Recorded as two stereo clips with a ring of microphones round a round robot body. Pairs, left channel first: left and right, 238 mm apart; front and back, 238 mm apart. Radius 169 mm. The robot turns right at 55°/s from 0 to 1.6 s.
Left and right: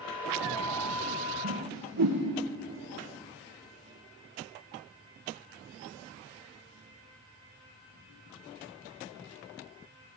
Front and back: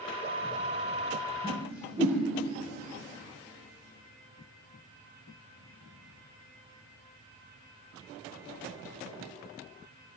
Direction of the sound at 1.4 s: 115° right.